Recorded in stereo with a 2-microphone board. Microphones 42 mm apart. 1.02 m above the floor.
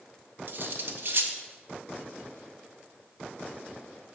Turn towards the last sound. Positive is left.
turn(degrees=-55)  # may be behind; listen again after turning